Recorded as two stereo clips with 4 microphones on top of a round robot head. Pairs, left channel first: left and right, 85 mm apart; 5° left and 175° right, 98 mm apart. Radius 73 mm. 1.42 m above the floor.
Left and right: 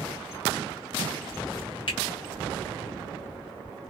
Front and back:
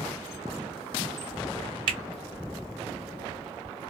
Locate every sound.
1.9 s a finger snap: 145° left, 1.1 m